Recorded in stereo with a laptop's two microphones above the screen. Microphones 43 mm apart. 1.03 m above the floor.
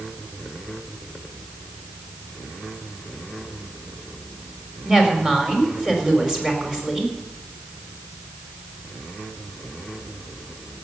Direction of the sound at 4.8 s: 15° right (ahead or behind).